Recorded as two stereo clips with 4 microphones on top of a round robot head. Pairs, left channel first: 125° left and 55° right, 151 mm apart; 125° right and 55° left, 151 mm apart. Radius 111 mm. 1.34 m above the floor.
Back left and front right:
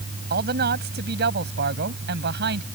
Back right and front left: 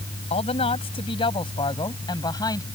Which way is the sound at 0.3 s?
75° right.